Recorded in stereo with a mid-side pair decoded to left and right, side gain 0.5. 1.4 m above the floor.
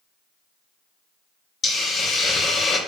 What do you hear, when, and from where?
1.6 s a hiss: 45° left, 0.6 m